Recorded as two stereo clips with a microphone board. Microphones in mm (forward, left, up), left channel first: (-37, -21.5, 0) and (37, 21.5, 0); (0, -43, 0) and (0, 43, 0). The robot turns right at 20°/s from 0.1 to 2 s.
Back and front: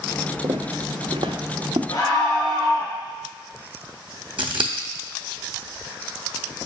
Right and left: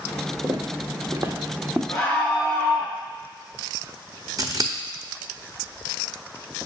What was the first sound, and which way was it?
Footsteps, 40° left.